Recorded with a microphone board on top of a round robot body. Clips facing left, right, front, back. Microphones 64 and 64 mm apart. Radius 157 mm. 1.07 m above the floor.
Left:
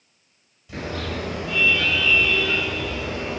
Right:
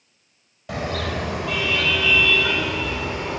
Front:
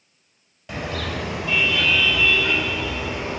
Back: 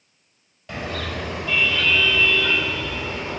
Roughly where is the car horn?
Right.